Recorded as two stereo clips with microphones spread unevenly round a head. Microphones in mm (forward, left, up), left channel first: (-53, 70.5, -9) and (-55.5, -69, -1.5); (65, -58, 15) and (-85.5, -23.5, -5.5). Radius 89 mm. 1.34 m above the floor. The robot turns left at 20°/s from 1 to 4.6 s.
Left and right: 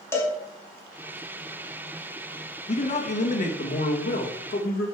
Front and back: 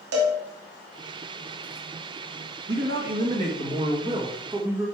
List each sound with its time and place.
0.1 s a cowbell: 160° left, 2 m
2.7 s a man speaking: 130° left, 1.8 m; by 4.8 s 90° left, 1.8 m